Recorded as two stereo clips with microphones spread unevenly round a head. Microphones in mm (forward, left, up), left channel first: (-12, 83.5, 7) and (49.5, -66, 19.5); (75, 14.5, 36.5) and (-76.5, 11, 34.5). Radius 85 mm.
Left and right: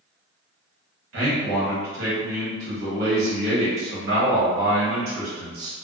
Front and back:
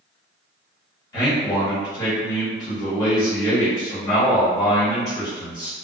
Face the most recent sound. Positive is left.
turn(degrees=-70)